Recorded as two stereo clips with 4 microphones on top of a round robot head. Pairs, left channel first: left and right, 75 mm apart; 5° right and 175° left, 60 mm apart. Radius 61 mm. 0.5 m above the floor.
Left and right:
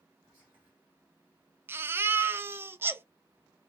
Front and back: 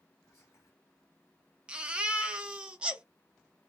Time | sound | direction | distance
0.2 | whispering | 25° right | 1.8 m
1.7 | a baby crying | 120° right | 0.6 m